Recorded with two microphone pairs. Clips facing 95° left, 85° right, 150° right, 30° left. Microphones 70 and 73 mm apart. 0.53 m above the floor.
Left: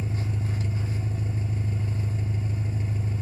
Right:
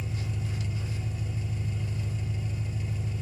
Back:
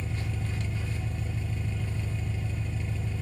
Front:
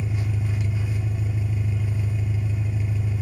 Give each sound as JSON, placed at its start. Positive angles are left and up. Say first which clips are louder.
{"t": 0.0, "sound": "an engine running", "louder": "left 4 dB, front 6 dB", "azimuth_deg": 95, "distance_m": 0.7}